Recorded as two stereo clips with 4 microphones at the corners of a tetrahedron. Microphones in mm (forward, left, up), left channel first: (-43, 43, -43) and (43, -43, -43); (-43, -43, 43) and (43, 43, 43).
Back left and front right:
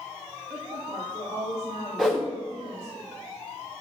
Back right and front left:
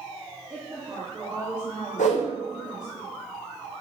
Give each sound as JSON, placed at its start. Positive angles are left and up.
{"t": 0.5, "sound": "a woman speaking", "azimuth_deg": -40, "distance_m": 2.5}
{"t": 2.0, "sound": "a whoosh", "azimuth_deg": -135, "distance_m": 1.4}